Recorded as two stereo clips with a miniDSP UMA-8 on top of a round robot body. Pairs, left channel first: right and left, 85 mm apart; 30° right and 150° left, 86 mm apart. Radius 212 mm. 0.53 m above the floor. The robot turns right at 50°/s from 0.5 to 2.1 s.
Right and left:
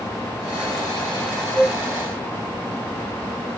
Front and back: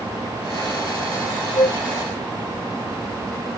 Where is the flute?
5° right, 2.5 m; by 1.8 s 10° left, 2.5 m.